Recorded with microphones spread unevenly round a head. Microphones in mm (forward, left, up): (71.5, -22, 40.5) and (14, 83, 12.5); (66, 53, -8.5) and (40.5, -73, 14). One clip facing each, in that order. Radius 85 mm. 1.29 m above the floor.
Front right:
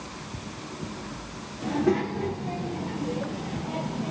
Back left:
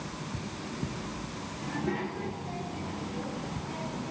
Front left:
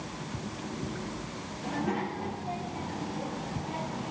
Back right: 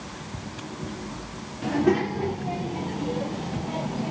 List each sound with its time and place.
1.6 s a child speaking: 105° right, 2 m; by 4.1 s 85° right, 5 m